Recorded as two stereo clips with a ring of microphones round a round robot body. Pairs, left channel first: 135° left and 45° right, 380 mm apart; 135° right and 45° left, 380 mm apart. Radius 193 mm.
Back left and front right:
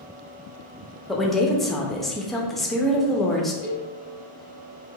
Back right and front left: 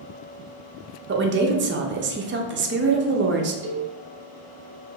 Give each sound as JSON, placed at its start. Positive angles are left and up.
{"t": 1.1, "sound": "a woman speaking", "azimuth_deg": 45, "distance_m": 0.5}
{"t": 3.6, "sound": "a cowbell", "azimuth_deg": 25, "distance_m": 1.0}